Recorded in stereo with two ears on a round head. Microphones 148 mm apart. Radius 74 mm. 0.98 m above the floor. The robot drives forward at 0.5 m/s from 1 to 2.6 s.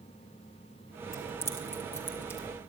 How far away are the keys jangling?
About 4 m.